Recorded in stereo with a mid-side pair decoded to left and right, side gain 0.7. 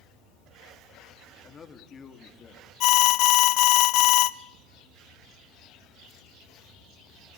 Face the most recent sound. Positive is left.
turn(degrees=60)